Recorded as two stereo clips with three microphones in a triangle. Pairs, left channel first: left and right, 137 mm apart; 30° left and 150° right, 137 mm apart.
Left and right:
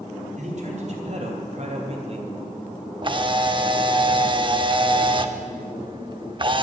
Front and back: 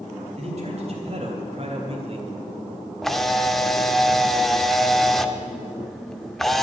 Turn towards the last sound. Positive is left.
turn(degrees=-55)